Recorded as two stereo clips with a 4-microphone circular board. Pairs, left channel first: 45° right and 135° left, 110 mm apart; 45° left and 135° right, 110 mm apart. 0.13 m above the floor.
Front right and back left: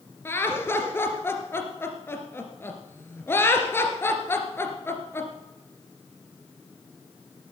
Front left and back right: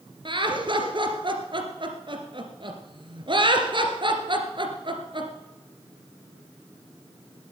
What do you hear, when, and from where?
0.2 s laughter: 110° right, 2.5 m